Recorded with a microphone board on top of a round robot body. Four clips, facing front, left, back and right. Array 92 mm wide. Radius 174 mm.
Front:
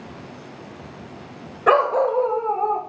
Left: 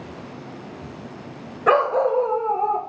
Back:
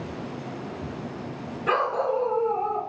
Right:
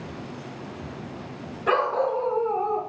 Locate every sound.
1.7 s a dog barking: 45° left, 1.4 m; by 2.8 s 65° left, 1.8 m